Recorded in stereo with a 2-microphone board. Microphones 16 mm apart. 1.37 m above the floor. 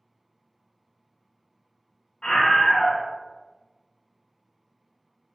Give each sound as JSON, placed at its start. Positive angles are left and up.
{"t": 2.2, "sound": "a scream", "side_deg": 80, "distance_m": 1.1}